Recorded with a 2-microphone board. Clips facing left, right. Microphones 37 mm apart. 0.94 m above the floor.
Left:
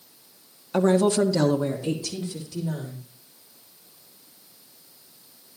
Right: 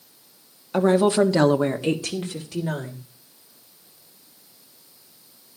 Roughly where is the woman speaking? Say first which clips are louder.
Right 2 dB; centre.